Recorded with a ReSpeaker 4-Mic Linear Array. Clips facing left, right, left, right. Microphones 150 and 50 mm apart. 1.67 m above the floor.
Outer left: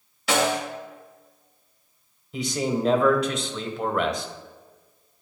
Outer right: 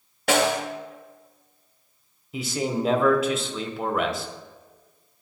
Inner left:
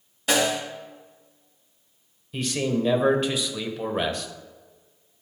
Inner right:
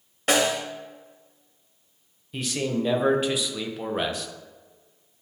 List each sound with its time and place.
0.3 s a snare drum: 55° right (ahead or behind), 2 m
2.3 s a man speaking: 5° right (ahead or behind), 1.0 m